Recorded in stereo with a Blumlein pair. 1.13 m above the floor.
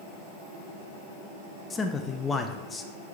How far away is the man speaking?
About 0.5 m.